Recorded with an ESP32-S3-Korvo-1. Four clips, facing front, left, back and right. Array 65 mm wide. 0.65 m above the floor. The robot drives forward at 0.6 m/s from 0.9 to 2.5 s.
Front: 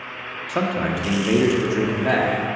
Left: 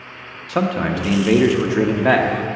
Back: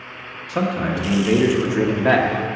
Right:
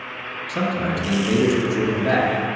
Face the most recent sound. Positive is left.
turn(degrees=135)